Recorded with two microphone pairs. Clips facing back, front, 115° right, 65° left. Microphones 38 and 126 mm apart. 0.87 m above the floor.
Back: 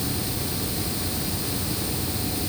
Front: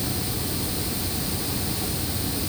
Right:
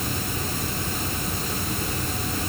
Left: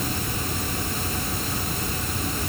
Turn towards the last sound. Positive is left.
No sound to turn to.